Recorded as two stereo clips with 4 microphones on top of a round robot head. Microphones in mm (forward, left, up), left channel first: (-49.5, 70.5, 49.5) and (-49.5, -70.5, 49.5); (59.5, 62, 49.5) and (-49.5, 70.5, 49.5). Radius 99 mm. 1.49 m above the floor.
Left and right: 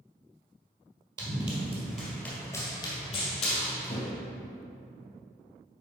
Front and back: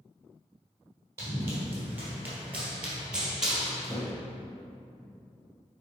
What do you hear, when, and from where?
1.2 s running footsteps: 125° right, 1.7 m; by 4.1 s 90° left, 2.5 m